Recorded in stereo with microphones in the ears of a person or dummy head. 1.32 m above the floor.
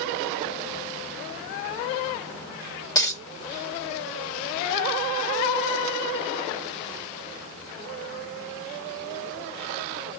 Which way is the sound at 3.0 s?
20° left (ahead or behind).